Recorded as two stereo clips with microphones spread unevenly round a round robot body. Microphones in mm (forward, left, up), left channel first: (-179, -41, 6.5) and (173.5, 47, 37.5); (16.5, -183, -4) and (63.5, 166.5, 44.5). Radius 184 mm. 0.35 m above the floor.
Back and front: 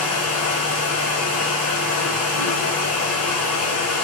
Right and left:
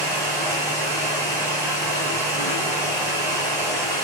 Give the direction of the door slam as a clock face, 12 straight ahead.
No door slam in this recording.